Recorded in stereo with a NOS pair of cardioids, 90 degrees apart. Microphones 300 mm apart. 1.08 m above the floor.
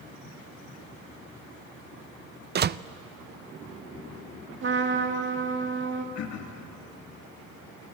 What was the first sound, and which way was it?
A door slam, 35° right.